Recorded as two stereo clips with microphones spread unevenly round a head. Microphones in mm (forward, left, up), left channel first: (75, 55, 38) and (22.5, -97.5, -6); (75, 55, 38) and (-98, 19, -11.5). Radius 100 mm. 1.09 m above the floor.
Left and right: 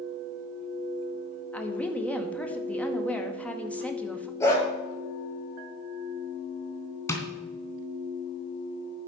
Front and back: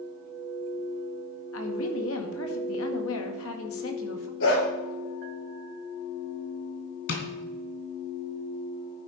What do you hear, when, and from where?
1.5 s a woman speaking: 15° right, 1.9 m
4.4 s a dog barking: straight ahead, 5.5 m
7.1 s tapping: 5° left, 3 m